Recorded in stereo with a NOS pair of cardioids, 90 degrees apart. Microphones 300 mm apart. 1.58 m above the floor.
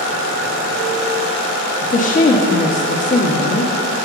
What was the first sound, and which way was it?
A woman speaking, 25° left.